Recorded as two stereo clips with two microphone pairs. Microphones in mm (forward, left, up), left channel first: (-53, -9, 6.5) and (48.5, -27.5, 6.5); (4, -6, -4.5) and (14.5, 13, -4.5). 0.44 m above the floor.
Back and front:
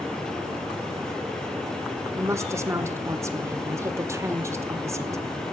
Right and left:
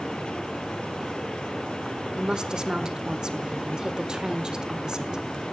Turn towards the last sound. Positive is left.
turn(degrees=30)